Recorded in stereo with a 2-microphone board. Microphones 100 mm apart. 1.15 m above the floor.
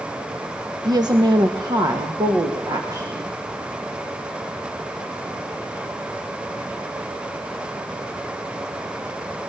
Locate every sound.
0.8 s a woman speaking: 45° right (ahead or behind), 1.0 m; by 3.4 s 40° right (ahead or behind), 3 m